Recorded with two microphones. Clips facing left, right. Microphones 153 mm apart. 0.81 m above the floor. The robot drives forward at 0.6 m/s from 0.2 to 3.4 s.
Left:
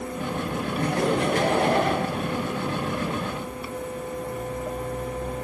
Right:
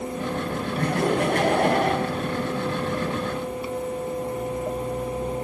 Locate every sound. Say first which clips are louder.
0.8 s laughter: right 1 dB; 65° right (ahead or behind), 5.5 m; by 2.0 s 60° right (ahead or behind), 5.5 m